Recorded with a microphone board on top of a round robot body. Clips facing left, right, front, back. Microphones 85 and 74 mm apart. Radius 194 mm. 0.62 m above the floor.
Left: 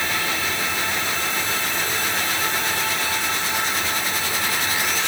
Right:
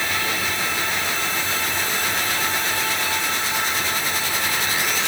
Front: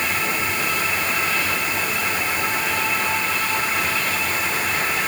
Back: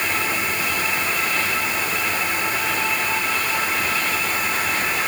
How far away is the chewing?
No chewing in this recording.